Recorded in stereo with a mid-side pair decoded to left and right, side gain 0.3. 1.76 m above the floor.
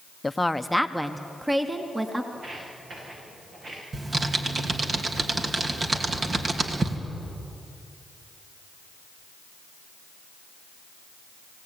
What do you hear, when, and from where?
0.2 s a woman speaking: 25° left, 0.9 m; by 2.2 s 25° right, 2.5 m
2.3 s footsteps: 65° right, 9 m
3.9 s typing on a keyboard: 50° right, 2.5 m